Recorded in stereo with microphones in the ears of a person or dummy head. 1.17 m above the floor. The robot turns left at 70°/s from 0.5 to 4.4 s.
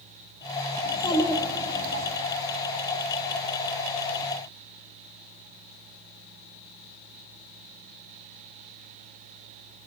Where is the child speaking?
35° left, 1.4 m; by 2.1 s 50° right, 1.4 m.